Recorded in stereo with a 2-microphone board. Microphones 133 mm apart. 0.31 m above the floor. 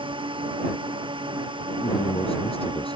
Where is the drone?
40° right (ahead or behind).